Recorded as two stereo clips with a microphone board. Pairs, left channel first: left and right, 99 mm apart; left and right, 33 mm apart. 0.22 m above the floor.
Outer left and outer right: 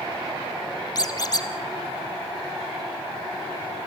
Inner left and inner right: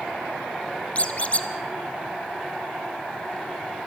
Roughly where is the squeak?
Left.